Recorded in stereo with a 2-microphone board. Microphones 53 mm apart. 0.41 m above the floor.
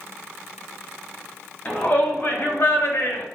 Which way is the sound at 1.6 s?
35° left (ahead or behind).